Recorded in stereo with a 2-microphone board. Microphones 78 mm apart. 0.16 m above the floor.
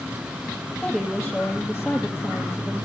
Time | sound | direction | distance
0.8 | a woman speaking | 5° left (ahead or behind) | 3.5 m